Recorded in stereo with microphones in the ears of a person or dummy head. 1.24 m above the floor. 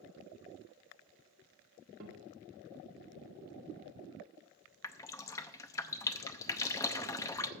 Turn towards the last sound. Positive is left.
turn(degrees=15)  # may be behind; listen again after turning